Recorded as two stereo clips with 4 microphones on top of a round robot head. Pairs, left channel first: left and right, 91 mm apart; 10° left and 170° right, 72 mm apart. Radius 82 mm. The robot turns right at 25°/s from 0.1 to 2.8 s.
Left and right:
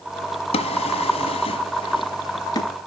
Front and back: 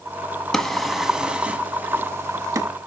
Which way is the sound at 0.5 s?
90° left.